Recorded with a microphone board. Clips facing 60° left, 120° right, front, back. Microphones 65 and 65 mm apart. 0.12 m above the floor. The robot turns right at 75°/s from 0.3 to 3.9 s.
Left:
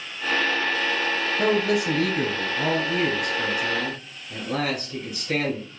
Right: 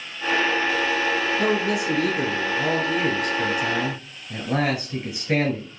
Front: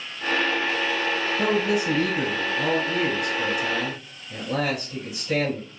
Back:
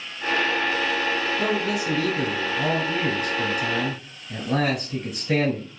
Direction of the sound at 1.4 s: Straight ahead.